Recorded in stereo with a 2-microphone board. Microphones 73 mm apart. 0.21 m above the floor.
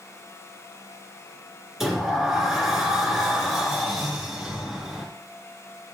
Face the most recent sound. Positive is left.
turn(degrees=-5)  # may be behind; listen again after turning